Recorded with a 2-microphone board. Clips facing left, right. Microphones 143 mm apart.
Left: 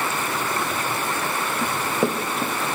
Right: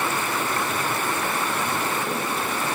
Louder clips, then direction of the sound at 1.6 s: Left 3 dB; 65° left (ahead or behind).